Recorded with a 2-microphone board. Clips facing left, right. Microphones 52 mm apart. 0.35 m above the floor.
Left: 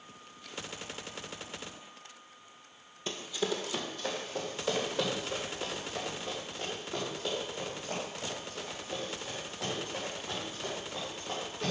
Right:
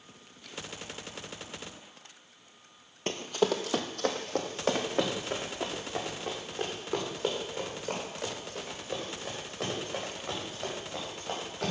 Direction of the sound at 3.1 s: 55° right (ahead or behind).